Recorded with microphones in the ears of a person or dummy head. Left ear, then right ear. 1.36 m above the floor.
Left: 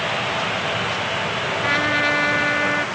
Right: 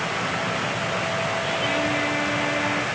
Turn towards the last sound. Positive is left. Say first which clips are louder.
# left 7 dB
turn(degrees=50)  # may be behind; listen again after turning